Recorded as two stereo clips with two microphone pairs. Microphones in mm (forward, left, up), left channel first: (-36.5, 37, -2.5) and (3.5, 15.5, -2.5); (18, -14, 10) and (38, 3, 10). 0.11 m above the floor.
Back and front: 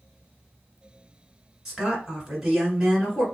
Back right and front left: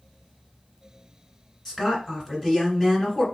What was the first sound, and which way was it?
A woman speaking, 100° right.